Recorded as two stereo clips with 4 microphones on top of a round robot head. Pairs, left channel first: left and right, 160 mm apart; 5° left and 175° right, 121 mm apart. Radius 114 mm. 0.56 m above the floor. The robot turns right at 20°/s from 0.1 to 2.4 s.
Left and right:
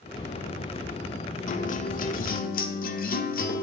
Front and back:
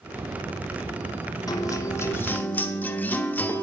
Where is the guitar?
60° left, 1.2 m; by 3.6 s 80° left, 1.2 m.